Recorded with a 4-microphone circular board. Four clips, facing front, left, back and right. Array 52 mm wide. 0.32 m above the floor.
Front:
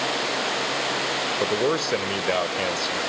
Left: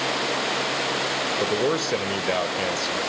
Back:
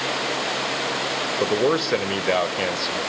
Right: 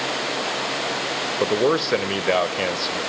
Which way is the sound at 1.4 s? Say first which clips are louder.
Right 5 dB, back 4 dB; 115° right.